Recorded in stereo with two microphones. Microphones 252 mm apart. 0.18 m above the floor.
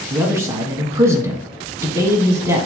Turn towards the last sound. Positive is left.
turn(degrees=-10)  # may be behind; listen again after turning